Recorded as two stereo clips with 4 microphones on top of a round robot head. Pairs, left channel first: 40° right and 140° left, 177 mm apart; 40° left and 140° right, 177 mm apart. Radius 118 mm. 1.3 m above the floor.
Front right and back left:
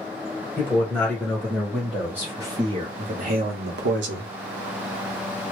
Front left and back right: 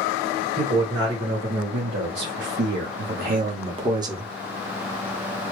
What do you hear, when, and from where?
0.6 s a man speaking: 115° right, 2.0 m; by 4.3 s 140° left, 1.1 m